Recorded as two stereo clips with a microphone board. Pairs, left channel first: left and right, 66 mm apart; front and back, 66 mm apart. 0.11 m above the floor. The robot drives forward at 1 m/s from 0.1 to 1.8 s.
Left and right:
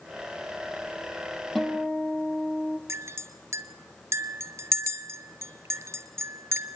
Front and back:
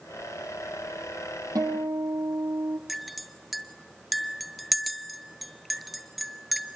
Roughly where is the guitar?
Behind.